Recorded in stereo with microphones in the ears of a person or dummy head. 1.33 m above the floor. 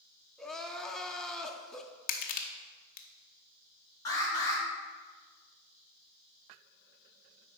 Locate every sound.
0.4 s crying: 5° left (ahead or behind), 0.6 m
2.1 s crushing: 45° left (ahead or behind), 0.8 m
4.0 s an alarm: 15° left (ahead or behind), 3.5 m